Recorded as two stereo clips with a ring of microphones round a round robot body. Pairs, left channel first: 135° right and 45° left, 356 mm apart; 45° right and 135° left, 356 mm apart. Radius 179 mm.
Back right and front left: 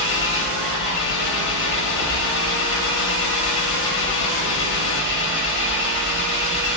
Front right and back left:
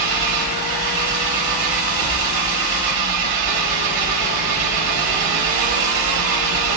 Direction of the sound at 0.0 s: 165° left.